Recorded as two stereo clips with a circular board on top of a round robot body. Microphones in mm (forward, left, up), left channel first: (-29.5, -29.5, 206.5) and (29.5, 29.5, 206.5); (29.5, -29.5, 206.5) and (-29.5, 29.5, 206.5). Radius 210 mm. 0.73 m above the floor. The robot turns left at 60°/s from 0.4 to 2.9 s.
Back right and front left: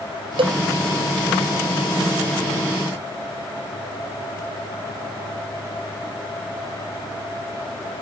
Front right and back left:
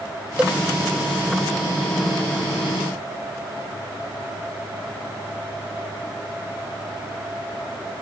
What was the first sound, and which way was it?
A cowbell, 55° left.